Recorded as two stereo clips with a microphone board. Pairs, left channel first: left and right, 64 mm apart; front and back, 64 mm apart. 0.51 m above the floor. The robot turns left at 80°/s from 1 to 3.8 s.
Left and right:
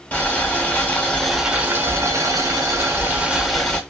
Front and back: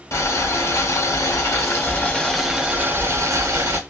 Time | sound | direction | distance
0.1 | boiling | 25° left | 1.0 m